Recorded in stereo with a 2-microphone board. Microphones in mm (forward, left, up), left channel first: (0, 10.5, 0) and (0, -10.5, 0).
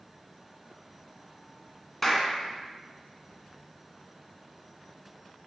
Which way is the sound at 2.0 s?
20° left (ahead or behind).